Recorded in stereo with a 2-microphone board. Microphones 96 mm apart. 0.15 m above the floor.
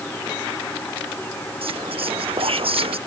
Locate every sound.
1.6 s whispering: 75° right (ahead or behind)